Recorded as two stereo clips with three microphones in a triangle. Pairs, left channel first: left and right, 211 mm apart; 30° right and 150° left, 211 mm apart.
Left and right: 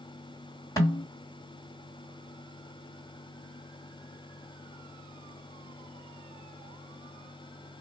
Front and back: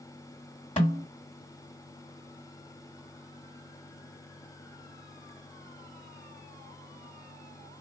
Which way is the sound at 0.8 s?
20° left.